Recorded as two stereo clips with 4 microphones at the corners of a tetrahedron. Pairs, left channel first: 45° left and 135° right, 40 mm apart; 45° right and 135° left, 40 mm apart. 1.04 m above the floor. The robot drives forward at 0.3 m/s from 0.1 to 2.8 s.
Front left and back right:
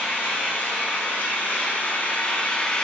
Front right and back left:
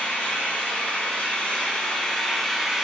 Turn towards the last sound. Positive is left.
turn(degrees=65)